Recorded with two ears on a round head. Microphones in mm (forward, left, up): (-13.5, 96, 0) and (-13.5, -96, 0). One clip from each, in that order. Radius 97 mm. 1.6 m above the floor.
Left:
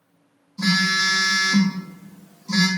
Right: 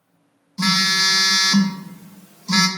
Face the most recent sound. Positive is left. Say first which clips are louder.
# right 2 dB
turn(degrees=-35)  # may be behind; listen again after turning